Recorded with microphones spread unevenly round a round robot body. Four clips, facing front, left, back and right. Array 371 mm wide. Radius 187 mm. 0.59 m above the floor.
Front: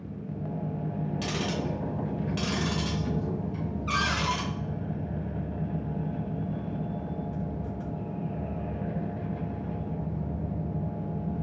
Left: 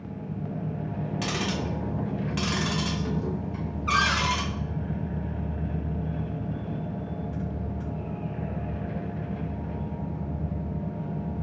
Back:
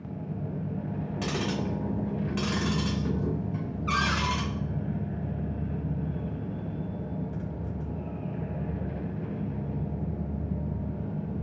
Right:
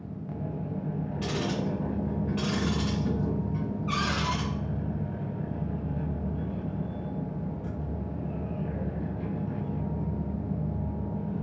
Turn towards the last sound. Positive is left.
turn(degrees=130)